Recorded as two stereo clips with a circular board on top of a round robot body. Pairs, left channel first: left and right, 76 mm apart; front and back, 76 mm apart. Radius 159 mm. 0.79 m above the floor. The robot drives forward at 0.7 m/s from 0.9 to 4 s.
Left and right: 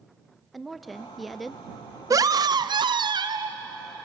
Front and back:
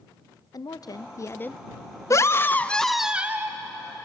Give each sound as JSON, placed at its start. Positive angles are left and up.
{"t": 0.5, "sound": "a woman speaking", "azimuth_deg": 0, "distance_m": 0.8}
{"t": 2.1, "sound": "a scream", "azimuth_deg": -45, "distance_m": 0.9}